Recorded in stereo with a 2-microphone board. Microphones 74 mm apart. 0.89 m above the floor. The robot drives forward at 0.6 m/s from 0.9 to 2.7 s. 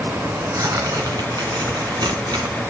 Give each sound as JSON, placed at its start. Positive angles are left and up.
{"t": 0.2, "sound": "tearing paper", "side_deg": -50, "distance_m": 1.9}